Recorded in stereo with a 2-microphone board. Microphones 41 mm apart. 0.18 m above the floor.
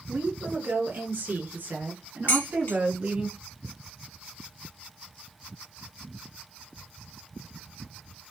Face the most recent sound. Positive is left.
turn(degrees=65)  # may be behind; listen again after turning